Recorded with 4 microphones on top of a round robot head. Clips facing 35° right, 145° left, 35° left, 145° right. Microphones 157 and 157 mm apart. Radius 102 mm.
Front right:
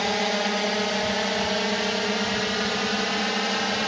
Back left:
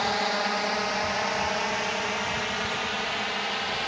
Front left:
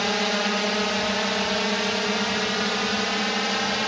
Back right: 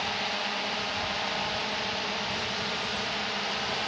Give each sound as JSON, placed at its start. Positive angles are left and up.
{"t": 0.0, "sound": "a drone", "azimuth_deg": 30}